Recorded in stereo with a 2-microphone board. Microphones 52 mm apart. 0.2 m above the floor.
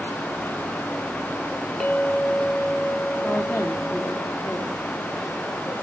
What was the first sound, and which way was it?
A clink, 10° left (ahead or behind).